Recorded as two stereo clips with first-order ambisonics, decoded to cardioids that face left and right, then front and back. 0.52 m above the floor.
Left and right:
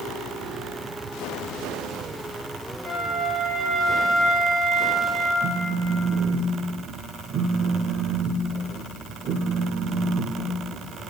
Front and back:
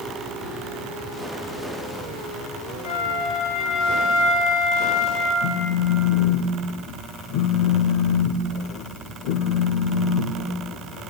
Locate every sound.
2.8 s a flute: 5° right, 3 m
5.4 s a phone buzzing: 30° right, 0.5 m